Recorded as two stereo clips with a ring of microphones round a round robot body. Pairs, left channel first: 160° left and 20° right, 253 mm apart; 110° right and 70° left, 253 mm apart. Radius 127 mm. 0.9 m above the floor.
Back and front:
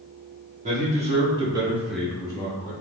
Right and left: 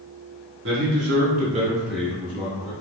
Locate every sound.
0.6 s a man speaking: 35° left, 1.4 m; by 2.7 s 145° right, 1.0 m